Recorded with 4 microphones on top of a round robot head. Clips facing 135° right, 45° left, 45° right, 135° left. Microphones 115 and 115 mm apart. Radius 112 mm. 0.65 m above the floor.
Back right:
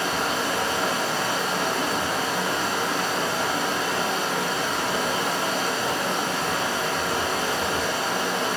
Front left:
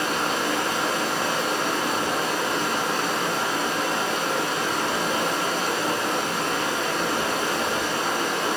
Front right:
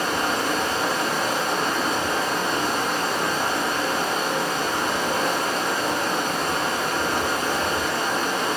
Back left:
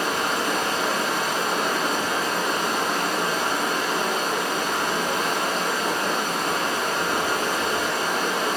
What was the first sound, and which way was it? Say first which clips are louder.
Running water: front left 1 dB, front right 1 dB; 145° right.